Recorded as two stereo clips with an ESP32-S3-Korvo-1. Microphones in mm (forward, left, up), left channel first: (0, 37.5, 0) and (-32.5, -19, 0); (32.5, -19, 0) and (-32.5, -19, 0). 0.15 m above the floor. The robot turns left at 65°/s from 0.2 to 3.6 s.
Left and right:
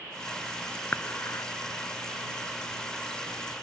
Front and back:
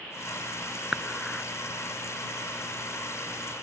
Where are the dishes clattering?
110° left; by 1.5 s 75° left.